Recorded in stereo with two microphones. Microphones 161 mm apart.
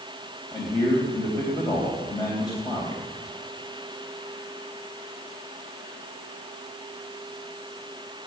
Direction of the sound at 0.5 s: 25° left (ahead or behind).